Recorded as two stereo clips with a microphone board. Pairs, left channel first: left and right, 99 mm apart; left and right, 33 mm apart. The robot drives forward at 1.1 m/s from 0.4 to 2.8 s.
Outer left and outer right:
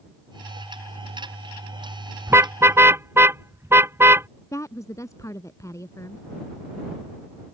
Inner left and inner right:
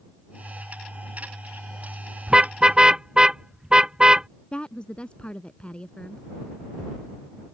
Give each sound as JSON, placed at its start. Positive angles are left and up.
{"t": 2.3, "sound": "a car horn", "side_deg": -25}
{"t": 4.5, "sound": "a woman speaking", "side_deg": 30}